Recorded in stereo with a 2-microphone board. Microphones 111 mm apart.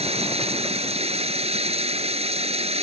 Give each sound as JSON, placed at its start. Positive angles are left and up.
{"t": 0.0, "sound": "running water", "side_deg": -75}